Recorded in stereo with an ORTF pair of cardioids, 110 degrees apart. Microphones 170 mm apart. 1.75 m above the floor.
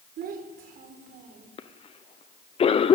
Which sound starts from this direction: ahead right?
A child speaking, at 0.2 s.